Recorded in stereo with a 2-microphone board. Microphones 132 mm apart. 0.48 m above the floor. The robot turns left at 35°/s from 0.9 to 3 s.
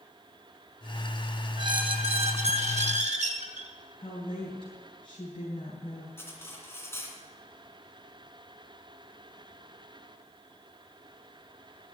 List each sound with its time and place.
1.6 s a squeak: 40° right, 1.4 m; by 3.7 s 90° right, 1.4 m
4.0 s a woman speaking: 45° left (ahead or behind), 3.5 m
6.2 s cutlery clinking: 20° left (ahead or behind), 2.5 m